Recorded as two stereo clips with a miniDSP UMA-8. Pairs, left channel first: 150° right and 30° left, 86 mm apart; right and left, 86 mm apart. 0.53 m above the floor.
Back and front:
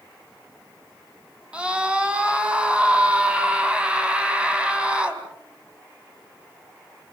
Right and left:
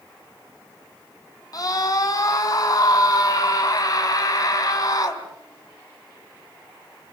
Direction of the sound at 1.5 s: 45° right.